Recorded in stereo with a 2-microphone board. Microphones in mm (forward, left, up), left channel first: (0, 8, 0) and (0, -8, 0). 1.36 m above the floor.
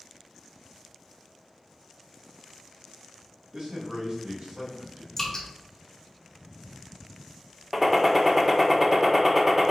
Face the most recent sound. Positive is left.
turn(degrees=-15)  # may be behind; listen again after turning